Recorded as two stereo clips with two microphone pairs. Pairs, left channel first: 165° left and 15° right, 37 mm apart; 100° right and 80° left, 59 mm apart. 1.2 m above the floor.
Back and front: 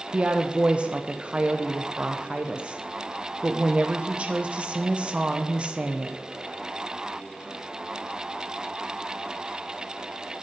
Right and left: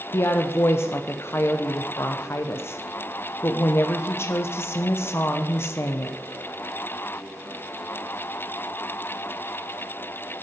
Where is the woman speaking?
60° right, 0.5 m.